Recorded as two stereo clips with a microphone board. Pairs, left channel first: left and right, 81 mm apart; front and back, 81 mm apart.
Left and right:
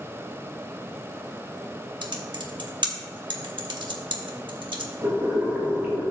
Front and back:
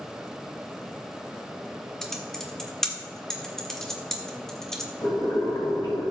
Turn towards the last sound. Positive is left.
turn(degrees=-25)